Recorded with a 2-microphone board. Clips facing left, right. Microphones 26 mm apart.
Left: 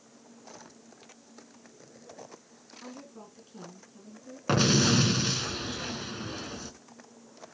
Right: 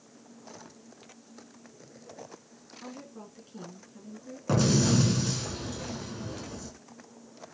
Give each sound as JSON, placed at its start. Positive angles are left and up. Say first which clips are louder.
{"t": 2.8, "sound": "a woman speaking", "louder": "right 2 dB", "side_deg": -5, "distance_m": 4.0}
{"t": 4.5, "sound": "an explosion", "louder": "left 1 dB", "side_deg": 55, "distance_m": 2.0}